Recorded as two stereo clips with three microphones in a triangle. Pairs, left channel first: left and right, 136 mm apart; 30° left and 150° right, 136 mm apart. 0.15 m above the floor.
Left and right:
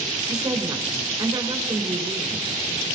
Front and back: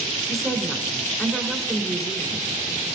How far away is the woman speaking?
About 1.7 m.